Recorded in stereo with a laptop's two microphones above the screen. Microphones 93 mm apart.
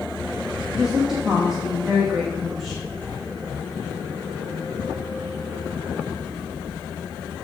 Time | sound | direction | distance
0.7 | a woman speaking | 5° right (ahead or behind) | 1.3 m